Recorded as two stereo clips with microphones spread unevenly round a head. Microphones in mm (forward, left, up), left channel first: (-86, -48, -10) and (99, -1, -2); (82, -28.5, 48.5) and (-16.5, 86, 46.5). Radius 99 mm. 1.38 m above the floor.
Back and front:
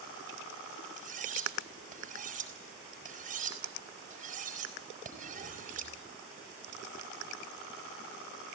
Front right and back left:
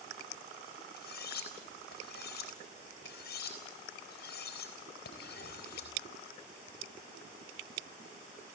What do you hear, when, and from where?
1.0 s cutlery clinking: 35° right, 4.5 m